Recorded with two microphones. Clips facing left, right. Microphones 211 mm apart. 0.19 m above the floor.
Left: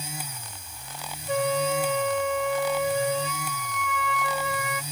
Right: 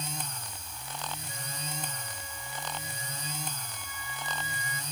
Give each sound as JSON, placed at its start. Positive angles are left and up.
{"t": 1.3, "sound": "a flute", "side_deg": 75}